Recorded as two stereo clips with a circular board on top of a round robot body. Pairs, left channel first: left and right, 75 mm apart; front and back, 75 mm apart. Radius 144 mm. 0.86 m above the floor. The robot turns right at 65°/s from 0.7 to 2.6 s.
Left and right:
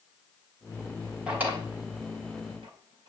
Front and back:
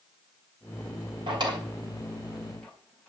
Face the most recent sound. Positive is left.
turn(degrees=-80)